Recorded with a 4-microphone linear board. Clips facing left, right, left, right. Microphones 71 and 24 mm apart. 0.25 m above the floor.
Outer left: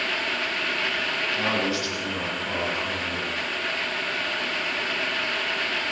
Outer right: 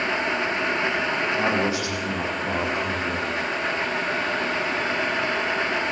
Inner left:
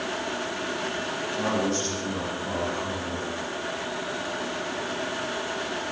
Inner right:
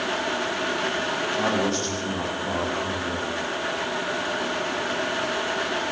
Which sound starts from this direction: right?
A man speaking, at 1.3 s.